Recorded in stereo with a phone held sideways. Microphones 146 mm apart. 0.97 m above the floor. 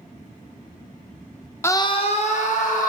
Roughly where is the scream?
Centre.